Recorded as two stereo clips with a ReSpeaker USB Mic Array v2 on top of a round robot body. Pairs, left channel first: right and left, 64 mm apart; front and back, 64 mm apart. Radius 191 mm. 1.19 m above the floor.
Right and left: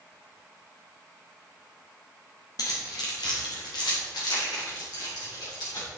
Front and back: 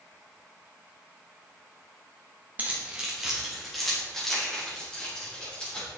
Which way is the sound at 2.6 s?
115° right.